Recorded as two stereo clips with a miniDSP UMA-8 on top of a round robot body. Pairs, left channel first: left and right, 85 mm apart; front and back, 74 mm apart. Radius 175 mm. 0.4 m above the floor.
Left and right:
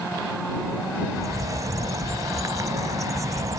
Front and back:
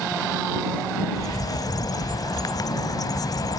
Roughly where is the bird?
Ahead right.